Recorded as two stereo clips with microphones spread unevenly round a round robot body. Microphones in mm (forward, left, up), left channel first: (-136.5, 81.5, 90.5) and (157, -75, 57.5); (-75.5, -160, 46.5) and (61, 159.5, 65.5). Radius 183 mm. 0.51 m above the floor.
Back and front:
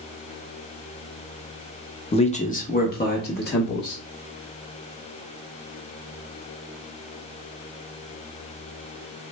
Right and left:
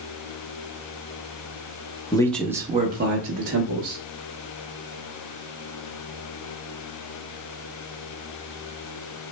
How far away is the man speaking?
About 0.7 m.